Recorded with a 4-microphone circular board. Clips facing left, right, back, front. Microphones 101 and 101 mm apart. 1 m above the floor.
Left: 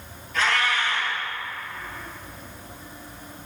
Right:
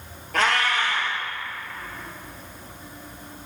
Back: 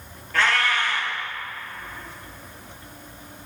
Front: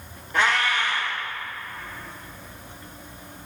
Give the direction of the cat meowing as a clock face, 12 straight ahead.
2 o'clock.